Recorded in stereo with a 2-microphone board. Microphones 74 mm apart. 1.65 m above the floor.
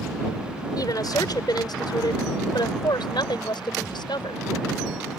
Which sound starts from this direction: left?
A woman speaking, at 0.8 s.